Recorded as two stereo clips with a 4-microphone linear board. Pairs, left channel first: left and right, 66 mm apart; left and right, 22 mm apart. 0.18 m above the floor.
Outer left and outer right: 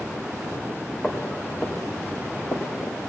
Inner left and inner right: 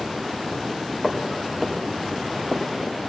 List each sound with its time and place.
1.0 s footsteps: 25° left (ahead or behind), 2.5 m; by 3.0 s 45° left (ahead or behind), 1.7 m